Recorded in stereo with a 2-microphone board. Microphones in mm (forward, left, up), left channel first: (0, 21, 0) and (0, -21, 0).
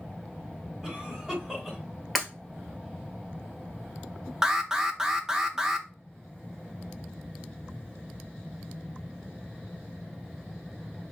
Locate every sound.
0.8 s a cough: 5° right (ahead or behind), 3 m
2.1 s breaking glass: centre (ahead or behind), 1.5 m
4.4 s an alarm: 10° right (ahead or behind), 0.5 m